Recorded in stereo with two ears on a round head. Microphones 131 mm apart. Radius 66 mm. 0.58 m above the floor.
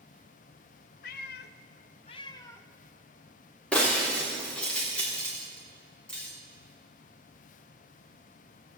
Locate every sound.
1.0 s a cat meowing: 65° left (ahead or behind), 0.6 m; by 2.7 s 15° left (ahead or behind), 0.8 m
3.7 s breaking glass: 5° left (ahead or behind), 4 m